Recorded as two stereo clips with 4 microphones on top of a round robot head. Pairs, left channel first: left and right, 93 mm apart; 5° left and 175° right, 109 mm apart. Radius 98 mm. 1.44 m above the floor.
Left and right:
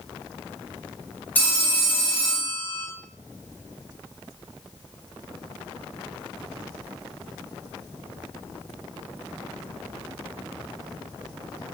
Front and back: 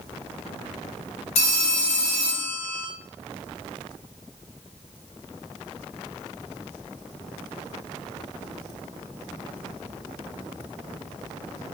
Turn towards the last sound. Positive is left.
turn(degrees=20)